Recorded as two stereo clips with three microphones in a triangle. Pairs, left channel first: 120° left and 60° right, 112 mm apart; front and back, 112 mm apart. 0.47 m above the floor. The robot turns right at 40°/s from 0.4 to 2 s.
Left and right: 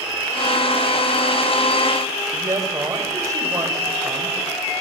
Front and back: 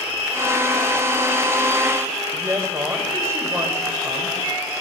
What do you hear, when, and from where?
2.3 s a woman speaking: 115° right, 2.5 m